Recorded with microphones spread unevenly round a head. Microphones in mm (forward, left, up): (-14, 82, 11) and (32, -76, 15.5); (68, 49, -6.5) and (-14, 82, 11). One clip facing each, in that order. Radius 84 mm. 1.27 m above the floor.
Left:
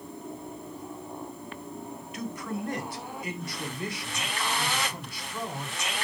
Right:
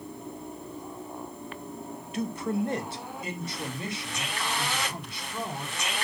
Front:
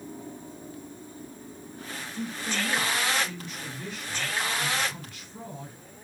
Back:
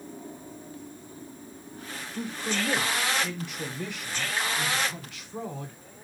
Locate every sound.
2.1 s a man speaking: 135° right, 1.2 m; by 5.8 s 140° right, 4.5 m